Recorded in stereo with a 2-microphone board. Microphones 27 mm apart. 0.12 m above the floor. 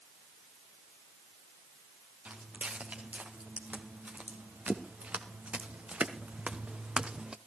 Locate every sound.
2.2 s footsteps: 90° right, 4 m; by 7.4 s 35° right (ahead or behind), 1.0 m